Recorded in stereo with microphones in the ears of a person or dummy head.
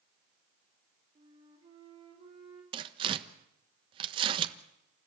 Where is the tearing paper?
30° right (ahead or behind), 1.2 m.